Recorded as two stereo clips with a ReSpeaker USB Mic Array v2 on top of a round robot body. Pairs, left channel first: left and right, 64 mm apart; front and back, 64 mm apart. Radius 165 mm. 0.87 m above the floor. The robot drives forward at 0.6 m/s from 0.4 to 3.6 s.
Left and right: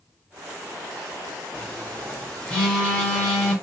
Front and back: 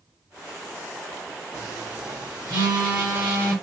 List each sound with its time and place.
1.5 s a phone buzzing: 145° left, 0.8 m; by 3.5 s 165° left, 1.9 m